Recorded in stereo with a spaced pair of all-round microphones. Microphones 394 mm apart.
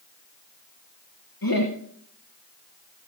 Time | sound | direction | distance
1.4 | laughter | 60° left (ahead or behind) | 1.3 m